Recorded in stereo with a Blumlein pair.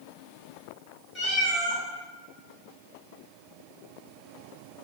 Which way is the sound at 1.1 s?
15° left.